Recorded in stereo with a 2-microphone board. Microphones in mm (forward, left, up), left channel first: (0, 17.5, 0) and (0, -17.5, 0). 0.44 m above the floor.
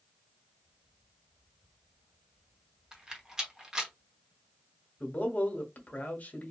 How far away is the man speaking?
About 1.1 m.